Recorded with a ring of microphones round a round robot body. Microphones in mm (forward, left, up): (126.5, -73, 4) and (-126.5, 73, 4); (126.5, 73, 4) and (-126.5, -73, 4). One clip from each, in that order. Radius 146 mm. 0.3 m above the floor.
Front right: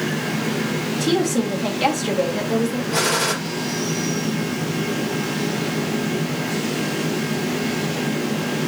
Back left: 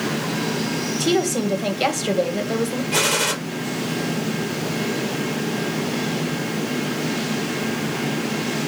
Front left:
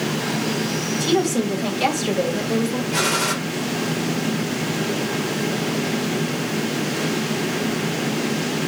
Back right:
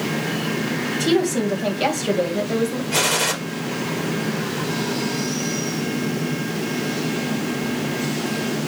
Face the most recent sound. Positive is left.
turn(degrees=150)